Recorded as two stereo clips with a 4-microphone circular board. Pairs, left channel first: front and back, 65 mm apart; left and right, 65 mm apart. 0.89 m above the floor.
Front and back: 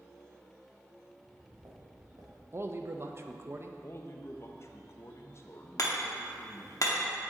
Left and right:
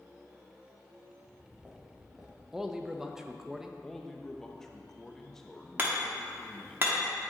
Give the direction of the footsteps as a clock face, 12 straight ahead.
5 o'clock.